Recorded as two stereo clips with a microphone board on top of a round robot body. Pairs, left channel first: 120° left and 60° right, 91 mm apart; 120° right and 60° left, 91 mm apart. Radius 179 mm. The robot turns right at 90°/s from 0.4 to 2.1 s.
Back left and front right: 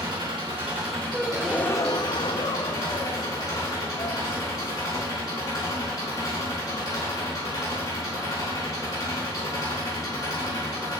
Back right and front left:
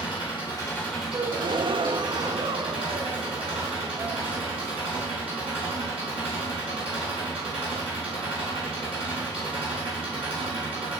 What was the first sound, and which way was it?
An engine running, 85° right.